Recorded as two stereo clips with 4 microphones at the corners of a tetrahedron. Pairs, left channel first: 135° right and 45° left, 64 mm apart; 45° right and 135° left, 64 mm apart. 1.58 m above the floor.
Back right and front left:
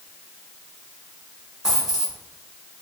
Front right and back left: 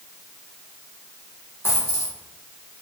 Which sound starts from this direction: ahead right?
A dropped coin, at 1.6 s.